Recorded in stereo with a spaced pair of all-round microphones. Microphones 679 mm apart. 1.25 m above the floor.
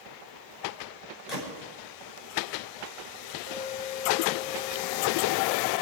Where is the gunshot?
70° left (ahead or behind), 6 m.